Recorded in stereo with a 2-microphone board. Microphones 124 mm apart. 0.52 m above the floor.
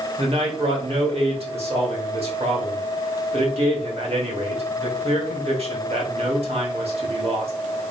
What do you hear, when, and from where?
0.2 s a man speaking: 55° right (ahead or behind), 1.8 m